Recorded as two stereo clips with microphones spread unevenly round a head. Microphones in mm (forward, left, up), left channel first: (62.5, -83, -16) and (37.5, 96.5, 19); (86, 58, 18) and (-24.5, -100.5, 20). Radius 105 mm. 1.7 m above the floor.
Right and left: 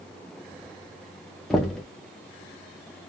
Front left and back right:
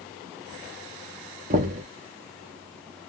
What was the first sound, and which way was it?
Knocking, 175° right.